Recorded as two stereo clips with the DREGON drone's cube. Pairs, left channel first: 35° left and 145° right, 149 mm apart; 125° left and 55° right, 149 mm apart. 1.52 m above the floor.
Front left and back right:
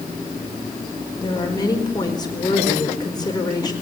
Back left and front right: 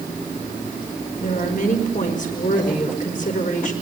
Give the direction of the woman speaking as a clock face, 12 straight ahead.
9 o'clock.